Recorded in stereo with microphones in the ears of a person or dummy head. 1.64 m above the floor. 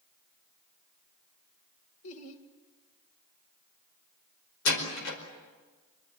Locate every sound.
2.0 s laughter: 80° left, 2 m
4.7 s a door slam: 80° left, 5 m